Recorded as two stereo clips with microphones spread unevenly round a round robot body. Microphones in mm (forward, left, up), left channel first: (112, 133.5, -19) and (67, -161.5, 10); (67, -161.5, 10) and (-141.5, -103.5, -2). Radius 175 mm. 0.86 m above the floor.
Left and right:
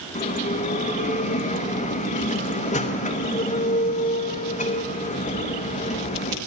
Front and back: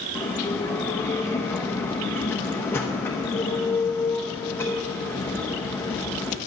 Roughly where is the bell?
Ahead left.